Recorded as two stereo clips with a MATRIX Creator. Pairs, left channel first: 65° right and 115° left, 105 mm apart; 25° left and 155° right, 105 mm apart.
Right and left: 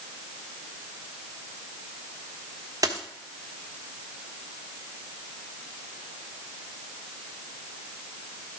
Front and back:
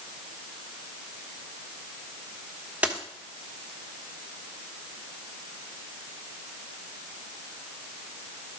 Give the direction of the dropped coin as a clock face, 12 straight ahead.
8 o'clock.